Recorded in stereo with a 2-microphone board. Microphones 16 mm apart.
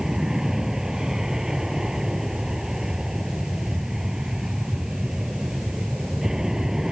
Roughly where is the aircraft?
Right.